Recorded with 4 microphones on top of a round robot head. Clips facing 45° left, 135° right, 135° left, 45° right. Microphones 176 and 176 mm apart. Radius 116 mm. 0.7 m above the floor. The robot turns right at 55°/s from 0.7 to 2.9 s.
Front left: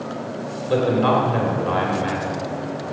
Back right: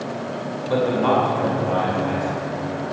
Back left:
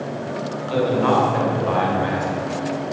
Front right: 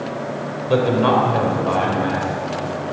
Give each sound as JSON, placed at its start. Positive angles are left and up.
{"t": 0.7, "sound": "a man speaking", "azimuth_deg": -15, "distance_m": 3.0}